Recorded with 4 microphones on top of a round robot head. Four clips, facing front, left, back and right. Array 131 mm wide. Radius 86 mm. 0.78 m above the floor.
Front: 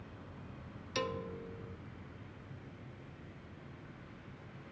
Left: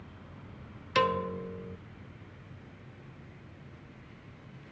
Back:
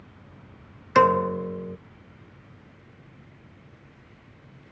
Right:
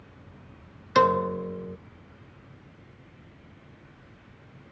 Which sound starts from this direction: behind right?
A piano, at 0.9 s.